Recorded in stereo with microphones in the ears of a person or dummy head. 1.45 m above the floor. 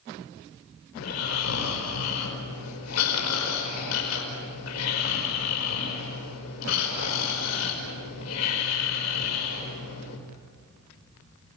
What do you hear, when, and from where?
1.0 s snoring: 85° left, 5 m